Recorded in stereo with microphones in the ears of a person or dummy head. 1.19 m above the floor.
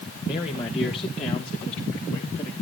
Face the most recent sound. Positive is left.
turn(degrees=30)  # may be behind; listen again after turning